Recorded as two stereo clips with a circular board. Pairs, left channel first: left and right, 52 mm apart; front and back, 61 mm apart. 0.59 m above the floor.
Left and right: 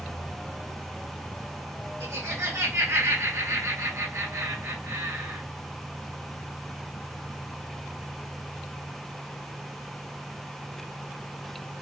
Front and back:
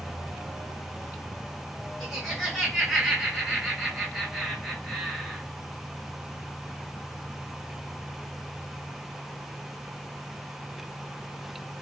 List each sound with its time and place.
2.0 s laughter: 90° right, 1.4 m